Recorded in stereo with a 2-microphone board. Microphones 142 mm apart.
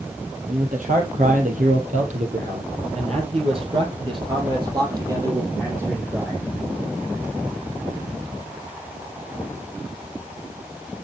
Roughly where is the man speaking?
Right.